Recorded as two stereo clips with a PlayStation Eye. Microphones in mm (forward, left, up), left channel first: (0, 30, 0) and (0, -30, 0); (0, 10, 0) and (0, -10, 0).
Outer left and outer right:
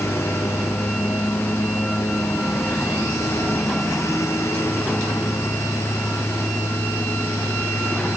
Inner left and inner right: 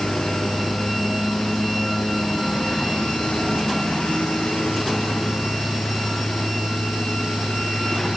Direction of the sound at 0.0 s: 60° left (ahead or behind).